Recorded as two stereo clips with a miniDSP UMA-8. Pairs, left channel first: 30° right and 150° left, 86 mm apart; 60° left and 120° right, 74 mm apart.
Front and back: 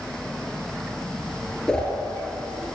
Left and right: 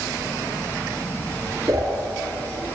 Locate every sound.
1.7 s a whoosh: 110° right, 3 m